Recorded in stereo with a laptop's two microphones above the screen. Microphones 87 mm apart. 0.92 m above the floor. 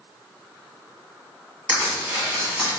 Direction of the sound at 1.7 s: 15° right (ahead or behind).